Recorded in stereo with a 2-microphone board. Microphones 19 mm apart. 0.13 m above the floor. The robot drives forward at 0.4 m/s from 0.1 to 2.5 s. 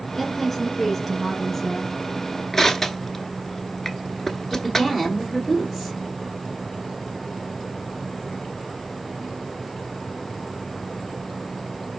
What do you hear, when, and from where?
0.2 s a woman speaking: 5° left (ahead or behind), 3 m
2.5 s crushing: 15° left (ahead or behind), 0.7 m
4.5 s a woman speaking: 10° right (ahead or behind), 2.0 m